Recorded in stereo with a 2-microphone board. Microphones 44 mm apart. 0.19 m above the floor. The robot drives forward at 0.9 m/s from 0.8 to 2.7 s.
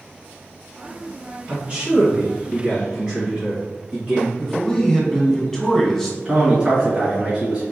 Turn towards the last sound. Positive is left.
turn(degrees=-10)  # may be behind; listen again after turning